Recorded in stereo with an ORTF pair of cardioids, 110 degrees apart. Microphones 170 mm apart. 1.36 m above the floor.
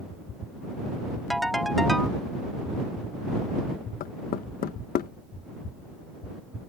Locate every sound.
1.3 s a ringtone: straight ahead
4.0 s knocking: 55° left